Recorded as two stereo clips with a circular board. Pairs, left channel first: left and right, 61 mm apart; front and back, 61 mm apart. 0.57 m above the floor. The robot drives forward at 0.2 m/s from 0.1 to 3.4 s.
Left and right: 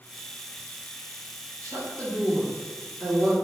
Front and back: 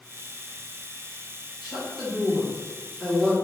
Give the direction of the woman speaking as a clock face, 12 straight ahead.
3 o'clock.